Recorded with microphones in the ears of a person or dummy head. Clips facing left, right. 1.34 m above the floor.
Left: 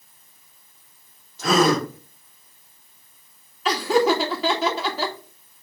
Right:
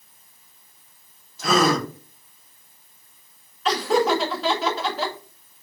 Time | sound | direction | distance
1.4 | a gasp | 10° right (ahead or behind) | 3.5 m
3.6 | laughter | centre (ahead or behind) | 1.8 m